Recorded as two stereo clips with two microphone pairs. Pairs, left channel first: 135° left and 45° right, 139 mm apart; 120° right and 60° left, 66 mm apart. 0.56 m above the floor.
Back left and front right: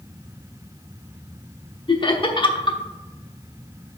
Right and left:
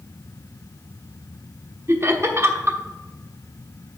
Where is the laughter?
95° left, 1.1 m.